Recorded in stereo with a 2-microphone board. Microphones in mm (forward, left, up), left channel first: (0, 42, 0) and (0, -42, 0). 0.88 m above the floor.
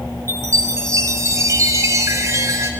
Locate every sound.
0.3 s a chime: 35° right (ahead or behind), 0.5 m